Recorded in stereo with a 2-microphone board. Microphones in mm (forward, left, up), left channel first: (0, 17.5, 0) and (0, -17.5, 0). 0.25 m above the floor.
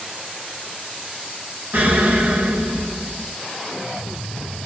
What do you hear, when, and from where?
1.7 s an explosion: 50° right (ahead or behind), 0.9 m